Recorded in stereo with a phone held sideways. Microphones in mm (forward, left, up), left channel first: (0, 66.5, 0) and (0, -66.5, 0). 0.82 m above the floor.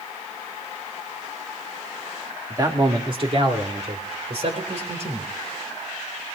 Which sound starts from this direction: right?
A man speaking, at 2.5 s.